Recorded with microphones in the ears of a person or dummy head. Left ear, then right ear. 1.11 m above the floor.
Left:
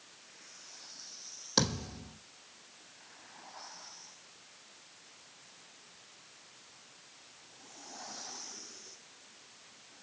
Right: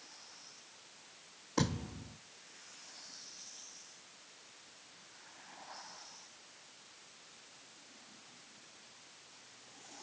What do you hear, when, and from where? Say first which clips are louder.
1.6 s a thud: left 5 dB; 65° left (ahead or behind), 2.5 m